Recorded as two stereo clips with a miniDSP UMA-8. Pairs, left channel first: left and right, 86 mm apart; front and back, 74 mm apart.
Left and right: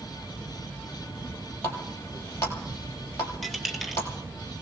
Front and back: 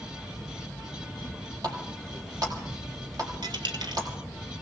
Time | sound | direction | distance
1.6 | a running tap | 150° left | 3 m
3.4 | a dropped coin | straight behind | 1.6 m